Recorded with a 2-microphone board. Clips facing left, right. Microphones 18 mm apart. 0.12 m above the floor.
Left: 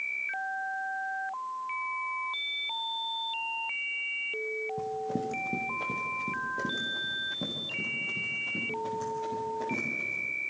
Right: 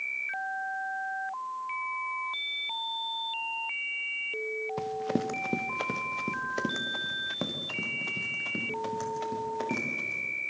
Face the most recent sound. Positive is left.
turn(degrees=-60)  # may be behind; listen again after turning